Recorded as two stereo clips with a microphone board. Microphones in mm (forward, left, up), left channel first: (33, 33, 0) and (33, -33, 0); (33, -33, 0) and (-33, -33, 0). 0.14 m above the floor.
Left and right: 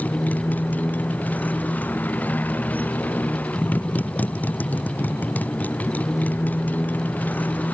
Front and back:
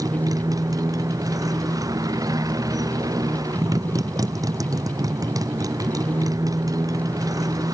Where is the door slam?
No door slam in this recording.